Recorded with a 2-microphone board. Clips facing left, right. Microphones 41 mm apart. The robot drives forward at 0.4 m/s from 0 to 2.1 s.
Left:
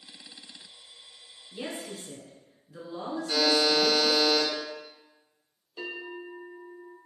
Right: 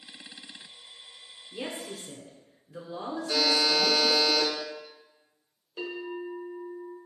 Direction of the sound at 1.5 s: 15° right (ahead or behind).